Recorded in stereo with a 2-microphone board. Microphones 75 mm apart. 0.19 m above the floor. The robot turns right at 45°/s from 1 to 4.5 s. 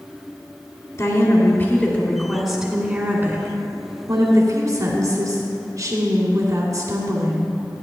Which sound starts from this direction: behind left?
A woman speaking, at 1.0 s.